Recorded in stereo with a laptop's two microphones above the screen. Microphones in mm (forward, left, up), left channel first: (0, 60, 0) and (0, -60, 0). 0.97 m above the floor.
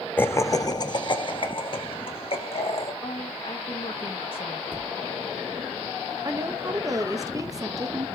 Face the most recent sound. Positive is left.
turn(degrees=-30)  # may be behind; listen again after turning